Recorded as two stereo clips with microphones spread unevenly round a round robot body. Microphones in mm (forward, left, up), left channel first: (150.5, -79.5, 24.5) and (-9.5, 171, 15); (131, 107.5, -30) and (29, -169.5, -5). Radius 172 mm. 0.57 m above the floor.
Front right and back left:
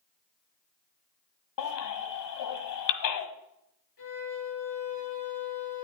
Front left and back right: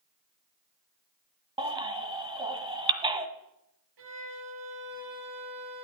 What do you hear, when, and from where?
1.6 s a baby crying: 35° right, 1.6 m
4.0 s a violin: 110° right, 8 m